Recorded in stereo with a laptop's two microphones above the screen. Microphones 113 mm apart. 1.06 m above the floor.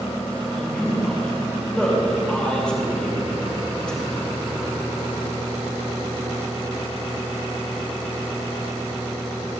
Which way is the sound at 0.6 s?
10° left (ahead or behind).